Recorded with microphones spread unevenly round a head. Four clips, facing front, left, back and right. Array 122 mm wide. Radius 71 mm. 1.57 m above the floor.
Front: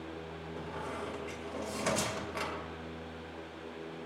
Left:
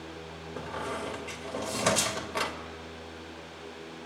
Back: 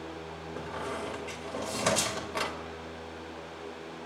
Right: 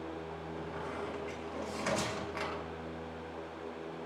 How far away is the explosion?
I don't hear an explosion.